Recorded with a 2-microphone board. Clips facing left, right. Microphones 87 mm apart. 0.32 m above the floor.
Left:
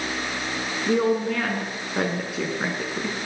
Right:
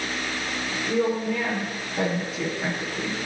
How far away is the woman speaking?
About 4.5 m.